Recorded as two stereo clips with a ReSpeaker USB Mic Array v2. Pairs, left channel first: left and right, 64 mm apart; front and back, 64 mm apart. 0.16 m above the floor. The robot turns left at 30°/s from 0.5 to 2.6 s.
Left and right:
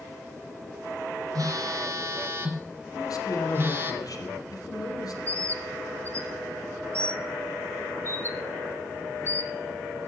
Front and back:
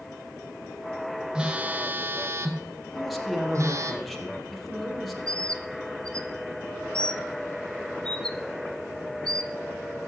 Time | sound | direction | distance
1.4 | a phone buzzing | 105° right | 1.9 m
2.9 | a man speaking | 90° left | 4 m
5.3 | a bird | 70° right | 0.9 m